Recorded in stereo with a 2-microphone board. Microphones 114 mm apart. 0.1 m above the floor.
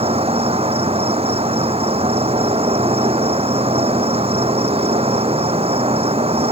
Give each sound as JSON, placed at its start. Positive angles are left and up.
{"t": 0.0, "sound": "an insect", "side_deg": -60}